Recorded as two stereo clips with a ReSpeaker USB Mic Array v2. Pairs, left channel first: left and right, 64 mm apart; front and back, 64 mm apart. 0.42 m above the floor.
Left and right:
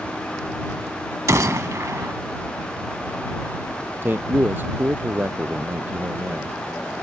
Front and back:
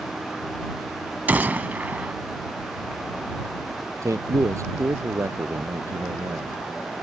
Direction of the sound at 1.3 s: 120° right.